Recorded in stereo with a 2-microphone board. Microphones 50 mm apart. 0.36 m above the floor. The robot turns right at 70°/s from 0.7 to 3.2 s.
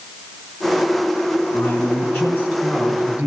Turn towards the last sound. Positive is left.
turn(degrees=-155)